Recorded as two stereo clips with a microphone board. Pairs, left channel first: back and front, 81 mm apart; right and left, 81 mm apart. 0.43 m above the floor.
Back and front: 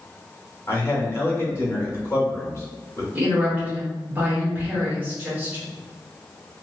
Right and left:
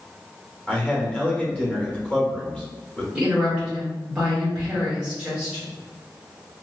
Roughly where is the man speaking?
Behind right.